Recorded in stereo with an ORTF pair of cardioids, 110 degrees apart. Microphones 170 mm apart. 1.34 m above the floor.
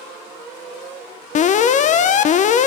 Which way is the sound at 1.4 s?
45° left.